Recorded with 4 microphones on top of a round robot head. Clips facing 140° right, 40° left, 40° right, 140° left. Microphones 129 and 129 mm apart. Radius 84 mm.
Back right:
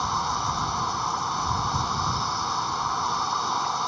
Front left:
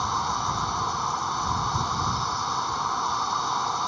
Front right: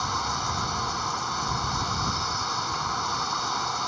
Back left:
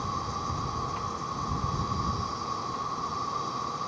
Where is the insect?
50° right.